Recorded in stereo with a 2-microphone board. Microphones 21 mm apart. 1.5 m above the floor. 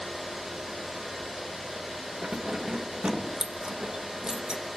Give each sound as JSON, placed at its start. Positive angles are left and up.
{"t": 2.2, "sound": "keys jangling", "side_deg": -40, "distance_m": 1.3}